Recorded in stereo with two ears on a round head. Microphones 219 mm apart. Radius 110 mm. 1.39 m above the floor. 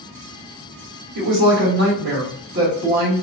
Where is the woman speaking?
40° right (ahead or behind), 1.2 m.